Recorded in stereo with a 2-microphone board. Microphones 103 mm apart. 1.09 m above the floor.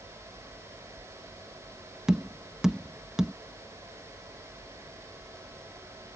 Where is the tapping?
5° right (ahead or behind).